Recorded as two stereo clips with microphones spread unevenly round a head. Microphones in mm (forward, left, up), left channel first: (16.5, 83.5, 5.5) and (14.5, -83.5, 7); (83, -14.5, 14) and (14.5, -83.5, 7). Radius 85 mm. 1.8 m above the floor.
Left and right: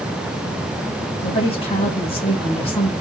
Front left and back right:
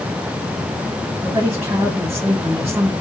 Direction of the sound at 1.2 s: 145° left.